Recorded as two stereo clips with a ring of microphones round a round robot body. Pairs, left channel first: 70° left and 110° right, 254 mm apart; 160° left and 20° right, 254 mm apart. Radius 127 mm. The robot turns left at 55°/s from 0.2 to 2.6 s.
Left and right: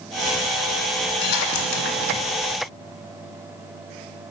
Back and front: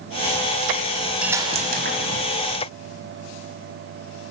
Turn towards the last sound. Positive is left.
turn(degrees=-10)